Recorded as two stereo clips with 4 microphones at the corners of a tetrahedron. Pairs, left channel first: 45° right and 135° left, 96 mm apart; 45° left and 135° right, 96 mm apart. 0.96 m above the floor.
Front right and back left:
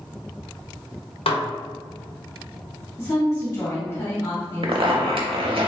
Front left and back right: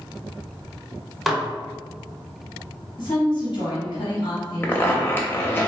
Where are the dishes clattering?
45° right, 0.5 m.